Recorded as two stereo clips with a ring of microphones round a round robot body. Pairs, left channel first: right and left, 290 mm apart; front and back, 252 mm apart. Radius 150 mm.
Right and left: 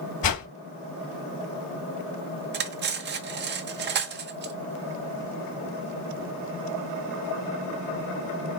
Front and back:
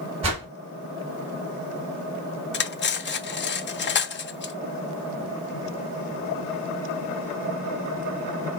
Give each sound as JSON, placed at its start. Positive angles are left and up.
{"t": 0.2, "sound": "a whoosh", "azimuth_deg": -110, "distance_m": 3.5}
{"t": 2.5, "sound": "cutlery clinking", "azimuth_deg": 40, "distance_m": 0.8}